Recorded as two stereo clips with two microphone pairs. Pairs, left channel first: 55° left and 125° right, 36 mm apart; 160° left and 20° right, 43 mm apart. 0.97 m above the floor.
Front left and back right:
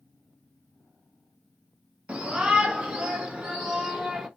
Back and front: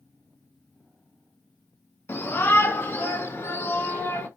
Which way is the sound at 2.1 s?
175° left.